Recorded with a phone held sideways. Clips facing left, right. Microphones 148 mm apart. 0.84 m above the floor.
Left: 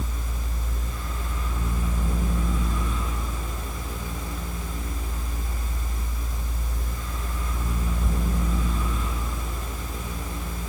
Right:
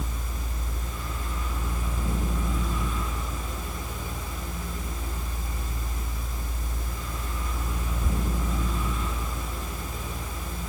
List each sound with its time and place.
0.0 s a fan: centre (ahead or behind), 6 m